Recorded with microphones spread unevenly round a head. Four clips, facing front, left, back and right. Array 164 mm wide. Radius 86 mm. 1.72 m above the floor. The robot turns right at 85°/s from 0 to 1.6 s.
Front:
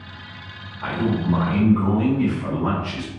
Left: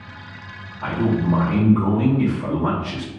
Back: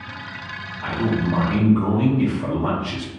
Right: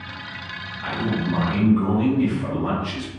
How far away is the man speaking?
About 1.0 m.